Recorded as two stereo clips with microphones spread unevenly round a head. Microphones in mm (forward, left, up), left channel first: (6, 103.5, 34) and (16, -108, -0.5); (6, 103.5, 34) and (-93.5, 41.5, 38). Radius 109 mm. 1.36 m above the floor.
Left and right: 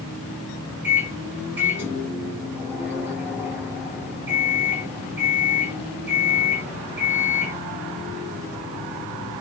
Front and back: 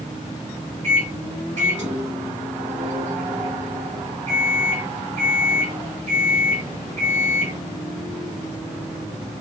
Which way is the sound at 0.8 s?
170° right.